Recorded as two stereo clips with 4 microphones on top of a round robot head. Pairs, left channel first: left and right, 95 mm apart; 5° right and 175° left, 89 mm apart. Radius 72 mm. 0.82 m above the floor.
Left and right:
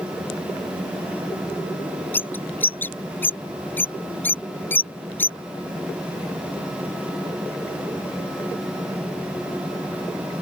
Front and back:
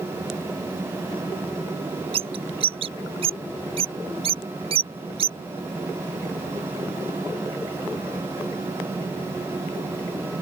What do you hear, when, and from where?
2.1 s a bird: 160° left